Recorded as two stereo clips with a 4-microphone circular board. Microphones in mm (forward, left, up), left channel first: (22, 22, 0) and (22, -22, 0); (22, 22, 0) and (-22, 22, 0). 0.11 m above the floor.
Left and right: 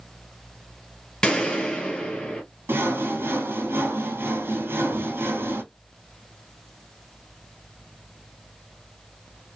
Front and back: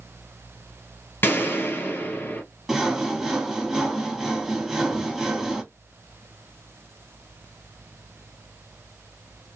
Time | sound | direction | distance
1.2 | a gunshot | 25° left | 1.7 m
2.7 | sawing | 105° right | 1.0 m